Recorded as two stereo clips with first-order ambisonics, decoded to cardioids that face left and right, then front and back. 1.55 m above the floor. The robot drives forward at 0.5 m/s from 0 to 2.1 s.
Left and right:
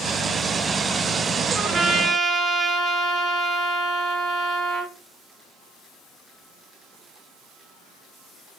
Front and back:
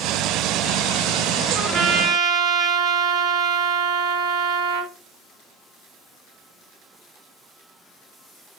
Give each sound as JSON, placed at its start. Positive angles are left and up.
{"t": 1.5, "sound": "a trumpet", "azimuth_deg": 180, "distance_m": 1.4}